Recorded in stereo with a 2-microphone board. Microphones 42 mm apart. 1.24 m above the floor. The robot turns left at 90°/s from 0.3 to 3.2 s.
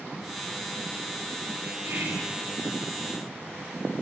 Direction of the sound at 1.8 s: 90° right.